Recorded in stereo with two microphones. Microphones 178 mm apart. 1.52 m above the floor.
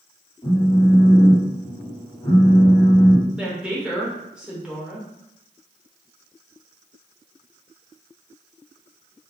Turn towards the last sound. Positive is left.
turn(degrees=-5)  # may be behind; listen again after turning